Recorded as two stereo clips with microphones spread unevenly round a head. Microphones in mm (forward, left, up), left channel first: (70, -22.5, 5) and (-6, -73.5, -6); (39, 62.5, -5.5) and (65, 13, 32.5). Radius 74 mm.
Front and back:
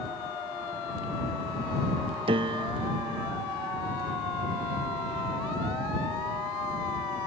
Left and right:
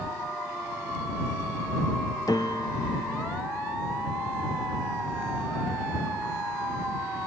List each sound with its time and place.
2.3 s a piano: 160° right